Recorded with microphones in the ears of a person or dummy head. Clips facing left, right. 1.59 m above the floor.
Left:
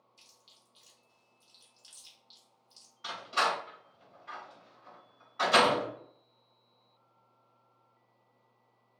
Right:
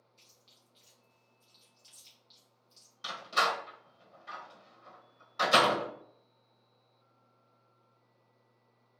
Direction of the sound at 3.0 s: 45° right (ahead or behind).